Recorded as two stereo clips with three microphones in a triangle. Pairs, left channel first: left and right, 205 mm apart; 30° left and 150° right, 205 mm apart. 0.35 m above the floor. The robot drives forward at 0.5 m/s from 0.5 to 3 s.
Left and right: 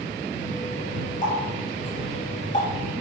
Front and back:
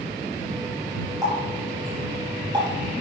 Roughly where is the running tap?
Behind left.